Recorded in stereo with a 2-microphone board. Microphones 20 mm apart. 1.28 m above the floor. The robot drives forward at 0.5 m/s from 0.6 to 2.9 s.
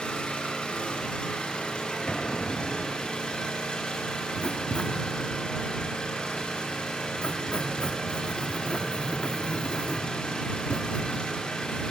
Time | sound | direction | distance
0.0 | an engine running | 75° left (ahead or behind) | 6.5 m
2.1 | an explosion | 70° left (ahead or behind) | 4.5 m
4.4 | writing | 55° left (ahead or behind) | 2 m